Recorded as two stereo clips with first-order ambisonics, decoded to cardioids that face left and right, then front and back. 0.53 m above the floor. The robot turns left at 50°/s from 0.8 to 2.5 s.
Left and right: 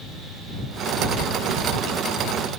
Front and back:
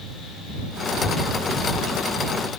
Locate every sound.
Only background noise.